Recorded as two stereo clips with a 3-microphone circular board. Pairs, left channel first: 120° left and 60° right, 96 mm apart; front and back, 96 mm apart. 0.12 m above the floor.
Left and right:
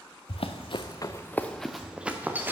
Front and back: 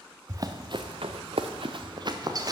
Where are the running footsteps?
125° left, 0.9 m; by 2.5 s 130° right, 1.4 m.